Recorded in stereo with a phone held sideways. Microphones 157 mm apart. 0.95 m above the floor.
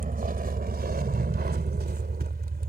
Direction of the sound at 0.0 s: 65° right (ahead or behind).